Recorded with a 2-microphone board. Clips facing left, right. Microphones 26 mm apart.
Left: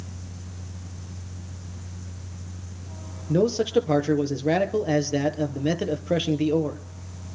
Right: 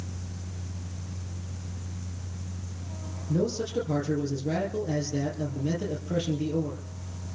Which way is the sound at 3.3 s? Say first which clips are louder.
Left 7 dB; 65° left (ahead or behind).